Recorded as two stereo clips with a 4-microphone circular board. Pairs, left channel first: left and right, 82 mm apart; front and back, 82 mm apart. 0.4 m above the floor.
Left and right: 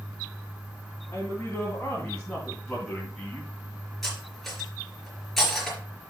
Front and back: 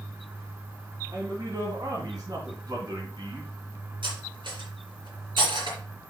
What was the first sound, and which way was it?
A man speaking, 150° left.